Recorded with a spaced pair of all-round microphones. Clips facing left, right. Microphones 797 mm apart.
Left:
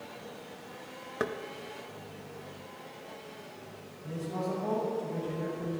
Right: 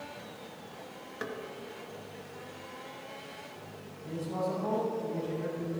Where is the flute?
I don't hear a flute.